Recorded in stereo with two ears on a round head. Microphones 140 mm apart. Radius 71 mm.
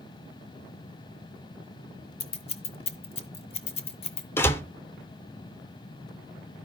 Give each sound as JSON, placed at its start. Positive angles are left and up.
{"t": 2.2, "sound": "scissors", "side_deg": 40, "distance_m": 0.8}
{"t": 4.4, "sound": "a door slam", "side_deg": 15, "distance_m": 0.6}